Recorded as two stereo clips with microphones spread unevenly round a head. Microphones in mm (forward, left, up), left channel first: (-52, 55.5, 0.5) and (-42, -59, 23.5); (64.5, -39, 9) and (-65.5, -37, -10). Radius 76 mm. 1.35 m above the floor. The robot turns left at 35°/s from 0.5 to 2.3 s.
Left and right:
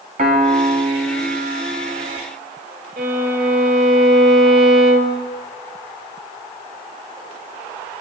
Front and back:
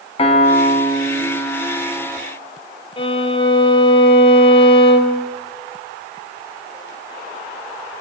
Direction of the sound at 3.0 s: 50° right.